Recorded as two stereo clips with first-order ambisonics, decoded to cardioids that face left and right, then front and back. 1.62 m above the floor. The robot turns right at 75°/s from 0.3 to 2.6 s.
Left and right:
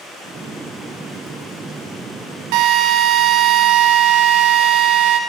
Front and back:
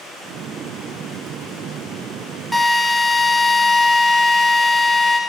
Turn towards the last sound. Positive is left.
turn(degrees=-80)